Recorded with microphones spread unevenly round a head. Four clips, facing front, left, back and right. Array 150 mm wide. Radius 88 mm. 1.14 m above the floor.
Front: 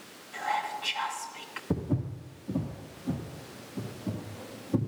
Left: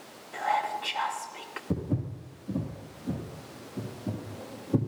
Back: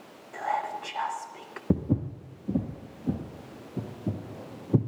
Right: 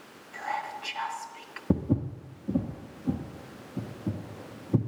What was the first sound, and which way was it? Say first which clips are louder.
Whispering: left 6 dB, back 2 dB; 135° left.